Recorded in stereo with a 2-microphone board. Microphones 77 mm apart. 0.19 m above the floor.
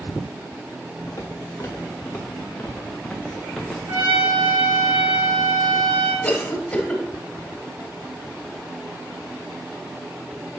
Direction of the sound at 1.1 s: 40° left (ahead or behind).